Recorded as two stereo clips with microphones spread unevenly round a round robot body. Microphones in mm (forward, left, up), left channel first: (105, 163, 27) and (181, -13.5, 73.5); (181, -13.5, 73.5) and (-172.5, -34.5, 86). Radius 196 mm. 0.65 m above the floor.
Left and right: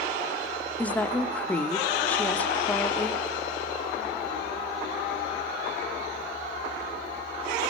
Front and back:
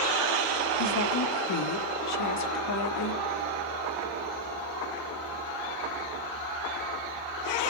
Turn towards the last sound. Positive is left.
turn(degrees=40)